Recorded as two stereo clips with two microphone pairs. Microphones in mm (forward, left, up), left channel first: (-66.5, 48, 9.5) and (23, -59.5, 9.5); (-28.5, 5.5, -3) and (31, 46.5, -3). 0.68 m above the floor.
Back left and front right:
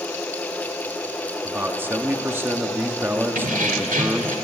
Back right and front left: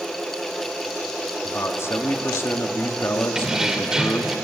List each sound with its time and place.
1.4 s a man speaking: 120° right, 1.5 m
3.4 s keys jangling: 45° right, 1.8 m